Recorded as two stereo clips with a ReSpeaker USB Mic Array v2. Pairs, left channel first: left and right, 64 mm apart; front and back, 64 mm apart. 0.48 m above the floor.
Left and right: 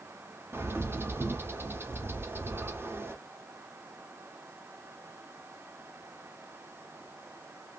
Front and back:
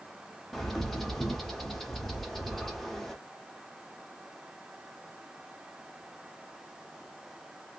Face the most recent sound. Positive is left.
turn(degrees=-85)